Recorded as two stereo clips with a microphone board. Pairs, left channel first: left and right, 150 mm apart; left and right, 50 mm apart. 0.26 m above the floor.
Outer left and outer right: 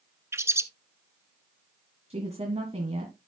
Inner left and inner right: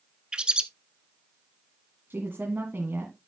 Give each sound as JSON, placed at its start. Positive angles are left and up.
{"t": 0.3, "sound": "a bird", "side_deg": -15, "distance_m": 0.8}
{"t": 2.1, "sound": "a woman speaking", "side_deg": -40, "distance_m": 2.0}